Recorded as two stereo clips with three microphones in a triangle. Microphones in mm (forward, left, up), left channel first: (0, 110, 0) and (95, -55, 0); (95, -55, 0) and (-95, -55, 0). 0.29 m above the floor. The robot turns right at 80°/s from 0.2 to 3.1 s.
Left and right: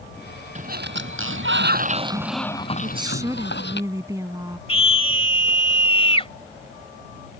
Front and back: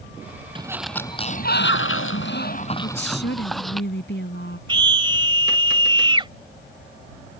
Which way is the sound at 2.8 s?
10° right.